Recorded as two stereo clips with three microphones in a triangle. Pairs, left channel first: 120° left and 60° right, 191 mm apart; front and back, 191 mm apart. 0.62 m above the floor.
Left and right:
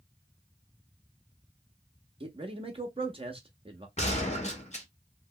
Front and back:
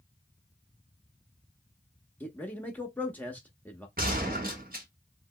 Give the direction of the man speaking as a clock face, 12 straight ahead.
2 o'clock.